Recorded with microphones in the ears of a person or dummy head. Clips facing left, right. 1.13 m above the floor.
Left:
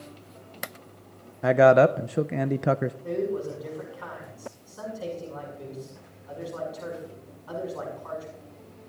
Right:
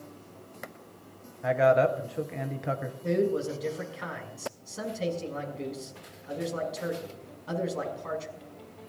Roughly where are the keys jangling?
No keys jangling in this recording.